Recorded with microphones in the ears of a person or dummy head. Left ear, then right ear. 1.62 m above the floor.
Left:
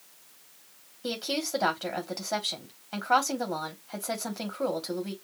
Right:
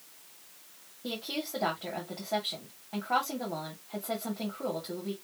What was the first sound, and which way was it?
A woman speaking, 75° left (ahead or behind).